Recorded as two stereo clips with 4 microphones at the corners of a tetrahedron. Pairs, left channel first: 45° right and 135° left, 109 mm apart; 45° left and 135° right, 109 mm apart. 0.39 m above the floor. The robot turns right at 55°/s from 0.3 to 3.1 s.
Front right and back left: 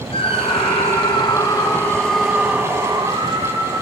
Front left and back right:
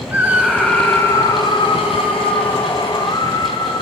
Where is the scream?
60° right, 2.5 m; by 3.8 s 95° left, 2.5 m.